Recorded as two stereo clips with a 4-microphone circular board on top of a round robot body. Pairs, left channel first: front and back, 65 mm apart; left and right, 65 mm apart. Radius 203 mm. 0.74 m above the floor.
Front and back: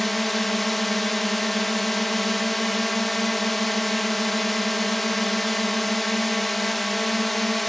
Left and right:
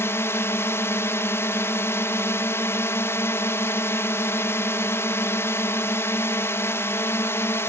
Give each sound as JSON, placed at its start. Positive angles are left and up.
{"t": 0.0, "sound": "a drone", "azimuth_deg": 90}